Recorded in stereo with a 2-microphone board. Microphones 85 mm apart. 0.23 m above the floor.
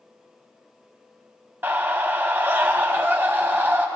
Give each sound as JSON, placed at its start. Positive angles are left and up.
{"t": 1.6, "sound": "a scream", "side_deg": -25, "distance_m": 1.2}